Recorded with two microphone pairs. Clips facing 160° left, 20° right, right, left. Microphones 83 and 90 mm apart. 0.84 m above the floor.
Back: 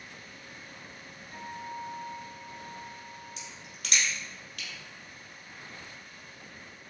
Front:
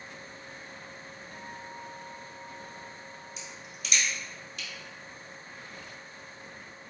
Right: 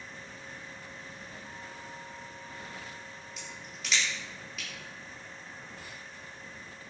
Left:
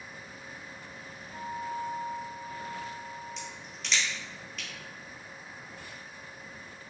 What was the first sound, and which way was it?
A guitar, 105° left.